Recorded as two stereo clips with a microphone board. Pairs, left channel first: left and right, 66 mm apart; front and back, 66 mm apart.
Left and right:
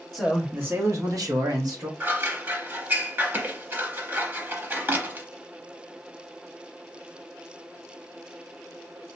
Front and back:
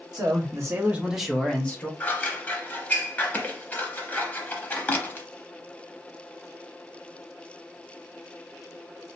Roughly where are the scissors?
Ahead right.